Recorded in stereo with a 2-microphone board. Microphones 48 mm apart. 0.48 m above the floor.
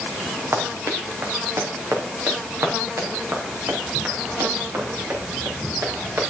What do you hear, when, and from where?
0.5 s running footsteps: 65° right (ahead or behind), 2.5 m; by 6.3 s 60° right (ahead or behind), 5.5 m